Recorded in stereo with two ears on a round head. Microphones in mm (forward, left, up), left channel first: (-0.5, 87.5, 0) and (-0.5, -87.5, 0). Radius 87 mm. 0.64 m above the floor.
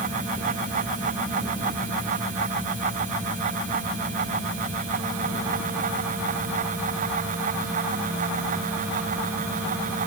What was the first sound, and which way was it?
Only background noise.